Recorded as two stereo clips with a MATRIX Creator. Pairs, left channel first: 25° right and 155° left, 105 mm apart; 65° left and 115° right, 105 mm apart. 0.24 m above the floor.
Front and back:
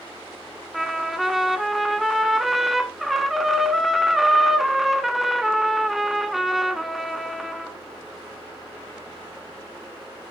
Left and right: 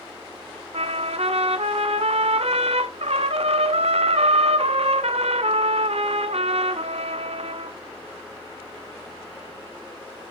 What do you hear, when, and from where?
0.7 s a trumpet: 115° right, 0.7 m